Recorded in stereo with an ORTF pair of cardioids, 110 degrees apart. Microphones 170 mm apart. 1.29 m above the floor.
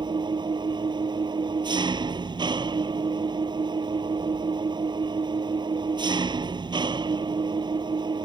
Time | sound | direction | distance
0.0 | an engine running | 25° right | ?